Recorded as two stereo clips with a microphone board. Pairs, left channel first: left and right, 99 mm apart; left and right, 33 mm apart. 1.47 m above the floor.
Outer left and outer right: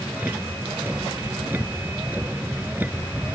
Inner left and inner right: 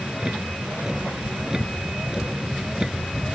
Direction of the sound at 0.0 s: 20° right (ahead or behind).